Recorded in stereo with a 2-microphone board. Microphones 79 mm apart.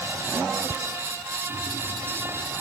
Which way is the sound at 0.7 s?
40° right (ahead or behind).